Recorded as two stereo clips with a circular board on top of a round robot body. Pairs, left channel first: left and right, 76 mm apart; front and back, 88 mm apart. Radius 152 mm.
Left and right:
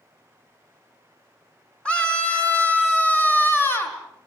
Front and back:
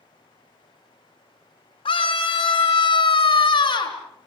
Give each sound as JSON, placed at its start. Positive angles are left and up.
{"t": 1.9, "sound": "a scream", "azimuth_deg": 15, "distance_m": 4.5}